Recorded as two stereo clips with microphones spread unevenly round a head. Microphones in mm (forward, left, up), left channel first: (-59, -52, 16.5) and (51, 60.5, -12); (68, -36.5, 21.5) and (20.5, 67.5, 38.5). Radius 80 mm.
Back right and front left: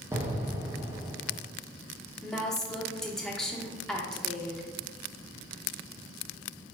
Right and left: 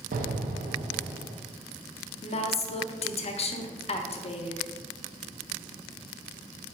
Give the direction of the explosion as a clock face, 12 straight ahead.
8 o'clock.